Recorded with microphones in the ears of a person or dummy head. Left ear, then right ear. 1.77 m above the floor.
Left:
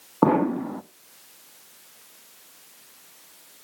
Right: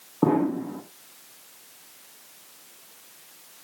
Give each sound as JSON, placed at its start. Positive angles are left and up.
{"t": 0.2, "sound": "an explosion", "side_deg": 55, "distance_m": 0.5}